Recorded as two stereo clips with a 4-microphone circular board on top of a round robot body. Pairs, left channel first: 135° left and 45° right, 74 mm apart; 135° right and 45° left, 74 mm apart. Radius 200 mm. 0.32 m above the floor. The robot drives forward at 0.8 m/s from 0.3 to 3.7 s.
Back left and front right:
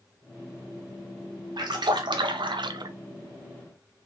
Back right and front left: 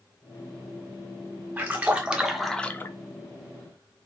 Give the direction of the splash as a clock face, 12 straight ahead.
1 o'clock.